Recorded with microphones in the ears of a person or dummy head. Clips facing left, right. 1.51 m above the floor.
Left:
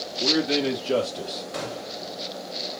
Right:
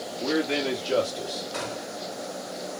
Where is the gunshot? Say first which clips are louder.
Left 1 dB; 40° left (ahead or behind), 2 m.